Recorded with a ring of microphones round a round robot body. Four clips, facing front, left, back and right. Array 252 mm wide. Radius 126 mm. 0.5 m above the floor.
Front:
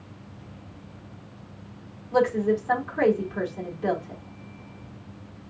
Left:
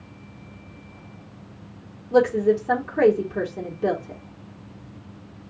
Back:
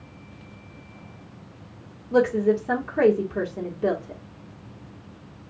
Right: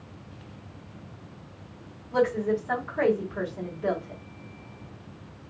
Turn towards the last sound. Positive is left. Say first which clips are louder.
# left 6 dB, back 2 dB
turn(degrees=130)